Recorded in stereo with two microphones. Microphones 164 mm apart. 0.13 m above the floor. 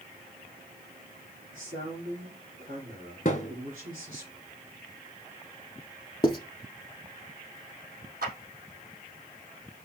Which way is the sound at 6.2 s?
30° left (ahead or behind).